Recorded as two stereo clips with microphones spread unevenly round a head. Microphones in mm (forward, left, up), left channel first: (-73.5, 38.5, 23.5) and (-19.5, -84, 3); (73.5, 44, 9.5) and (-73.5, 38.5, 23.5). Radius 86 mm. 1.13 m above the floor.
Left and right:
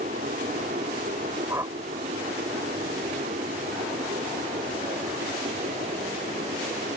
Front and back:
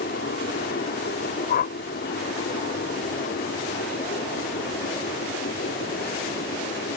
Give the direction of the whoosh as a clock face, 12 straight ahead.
11 o'clock.